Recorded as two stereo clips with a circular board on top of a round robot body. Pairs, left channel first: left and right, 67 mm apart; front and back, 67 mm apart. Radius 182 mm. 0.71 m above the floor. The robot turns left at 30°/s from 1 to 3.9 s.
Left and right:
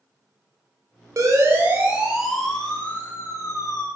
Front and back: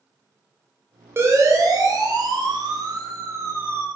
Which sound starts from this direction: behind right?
A siren, at 1.2 s.